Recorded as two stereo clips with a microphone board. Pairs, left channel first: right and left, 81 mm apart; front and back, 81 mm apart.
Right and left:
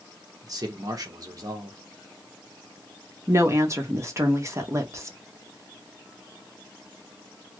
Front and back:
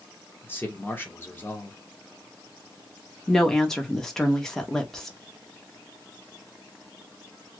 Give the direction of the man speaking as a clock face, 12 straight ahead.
10 o'clock.